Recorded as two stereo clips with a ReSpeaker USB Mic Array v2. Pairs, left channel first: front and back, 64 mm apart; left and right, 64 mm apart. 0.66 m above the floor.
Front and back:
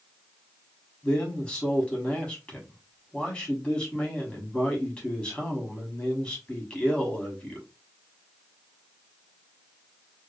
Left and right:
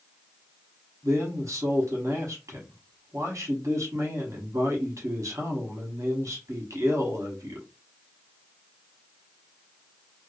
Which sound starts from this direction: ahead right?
A man speaking, at 1.0 s.